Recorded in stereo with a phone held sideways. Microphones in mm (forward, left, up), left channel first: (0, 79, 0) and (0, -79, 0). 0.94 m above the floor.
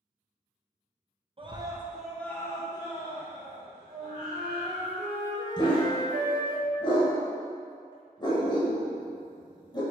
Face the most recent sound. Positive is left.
turn(degrees=30)  # may be behind; listen again after turning